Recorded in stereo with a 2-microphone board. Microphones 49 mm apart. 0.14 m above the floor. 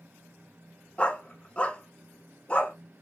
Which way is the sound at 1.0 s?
25° left (ahead or behind).